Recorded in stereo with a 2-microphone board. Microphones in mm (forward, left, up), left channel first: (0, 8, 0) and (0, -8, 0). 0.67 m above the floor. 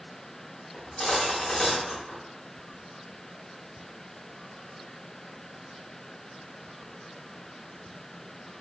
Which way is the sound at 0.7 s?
40° left (ahead or behind).